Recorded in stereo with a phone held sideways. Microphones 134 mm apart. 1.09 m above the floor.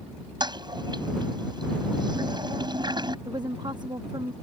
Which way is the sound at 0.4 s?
35° right (ahead or behind).